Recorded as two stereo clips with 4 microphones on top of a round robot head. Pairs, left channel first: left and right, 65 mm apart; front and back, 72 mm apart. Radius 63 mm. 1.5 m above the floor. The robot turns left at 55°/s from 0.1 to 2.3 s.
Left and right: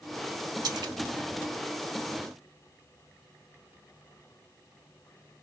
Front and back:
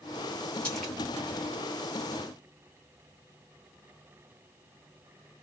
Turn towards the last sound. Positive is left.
turn(degrees=-170)